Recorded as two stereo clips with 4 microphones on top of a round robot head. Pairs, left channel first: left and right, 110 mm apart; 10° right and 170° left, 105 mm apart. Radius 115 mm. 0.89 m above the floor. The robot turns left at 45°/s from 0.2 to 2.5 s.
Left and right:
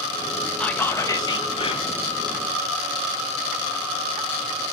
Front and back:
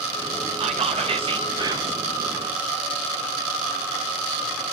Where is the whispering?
170° left, 0.9 m; by 2.0 s 105° left, 0.9 m.